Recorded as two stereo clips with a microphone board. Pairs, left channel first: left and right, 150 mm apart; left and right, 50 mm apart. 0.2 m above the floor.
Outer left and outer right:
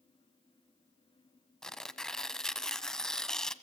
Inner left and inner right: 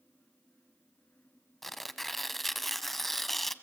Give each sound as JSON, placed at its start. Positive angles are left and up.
{"t": 1.6, "sound": "tearing paper", "side_deg": 5, "distance_m": 1.2}